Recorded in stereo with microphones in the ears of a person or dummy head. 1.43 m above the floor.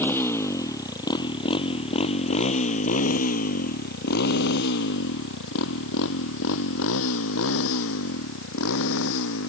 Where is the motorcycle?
15° left (ahead or behind); by 9.5 s 85° left.